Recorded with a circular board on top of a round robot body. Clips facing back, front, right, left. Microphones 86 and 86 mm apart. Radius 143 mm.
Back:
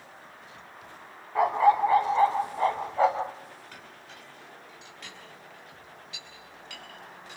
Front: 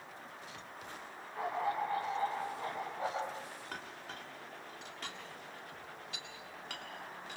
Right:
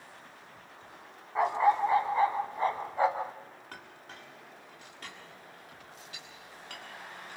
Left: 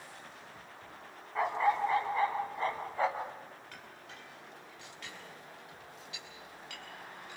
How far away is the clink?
About 7 m.